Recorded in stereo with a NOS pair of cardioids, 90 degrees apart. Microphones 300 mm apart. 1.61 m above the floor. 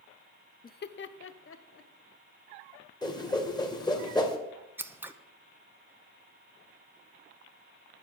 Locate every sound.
0.6 s laughter: 25° left, 0.5 m; by 1.9 s 45° left, 1.8 m
3.0 s a whoosh: 15° left, 2 m
4.8 s scissors: 5° right, 1.0 m